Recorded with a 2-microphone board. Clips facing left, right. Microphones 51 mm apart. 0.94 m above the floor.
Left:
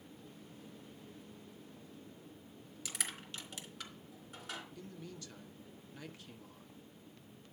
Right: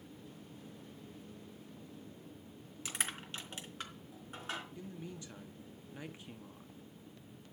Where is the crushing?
35° right (ahead or behind), 3 m.